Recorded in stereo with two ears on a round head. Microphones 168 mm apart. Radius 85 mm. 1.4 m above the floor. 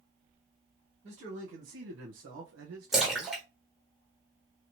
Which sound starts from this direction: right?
A man speaking, at 1.0 s.